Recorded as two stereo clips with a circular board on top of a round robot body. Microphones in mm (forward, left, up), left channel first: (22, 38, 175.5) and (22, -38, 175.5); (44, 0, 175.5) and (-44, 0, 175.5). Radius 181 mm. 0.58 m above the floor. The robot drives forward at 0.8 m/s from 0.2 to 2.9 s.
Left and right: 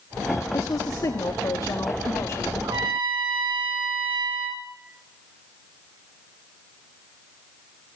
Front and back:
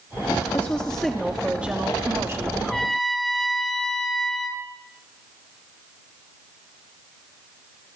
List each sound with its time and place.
0.5 s a woman speaking: 65° left, 1.5 m; by 2.5 s 135° left, 1.8 m
2.6 s a trumpet: 80° right, 1.5 m; by 4.6 s 90° right, 1.4 m